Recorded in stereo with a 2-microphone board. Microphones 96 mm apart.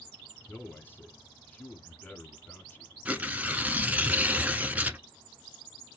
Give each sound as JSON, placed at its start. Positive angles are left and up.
{"t": 0.5, "sound": "a man speaking", "side_deg": 20, "distance_m": 1.1}
{"t": 3.0, "sound": "tearing paper", "side_deg": -15, "distance_m": 0.7}